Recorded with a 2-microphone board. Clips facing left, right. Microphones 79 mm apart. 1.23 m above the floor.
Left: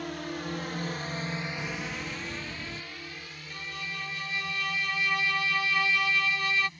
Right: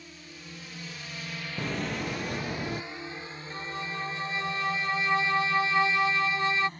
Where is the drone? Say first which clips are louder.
Left 13 dB; 75° left (ahead or behind); by 6.8 s 45° right (ahead or behind).